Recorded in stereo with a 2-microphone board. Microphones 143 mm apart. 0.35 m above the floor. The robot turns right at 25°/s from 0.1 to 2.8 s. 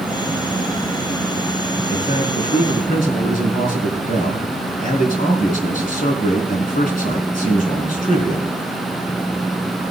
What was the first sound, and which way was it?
A man speaking, 55° left (ahead or behind).